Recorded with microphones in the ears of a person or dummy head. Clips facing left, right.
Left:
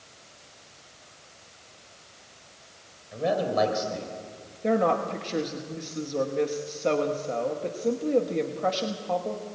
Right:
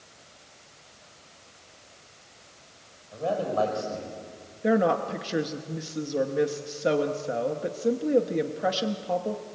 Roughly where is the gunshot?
I don't hear a gunshot.